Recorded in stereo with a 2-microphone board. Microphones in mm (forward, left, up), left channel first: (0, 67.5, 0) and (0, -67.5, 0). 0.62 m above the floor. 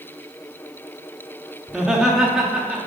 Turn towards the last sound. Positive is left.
turn(degrees=-5)  # may be behind; listen again after turning